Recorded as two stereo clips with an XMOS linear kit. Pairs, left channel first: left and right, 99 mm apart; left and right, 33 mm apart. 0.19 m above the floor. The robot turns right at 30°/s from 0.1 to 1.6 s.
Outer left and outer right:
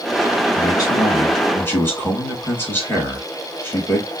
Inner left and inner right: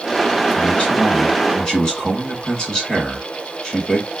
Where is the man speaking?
120° left, 2 m; by 4.1 s 150° left, 2 m.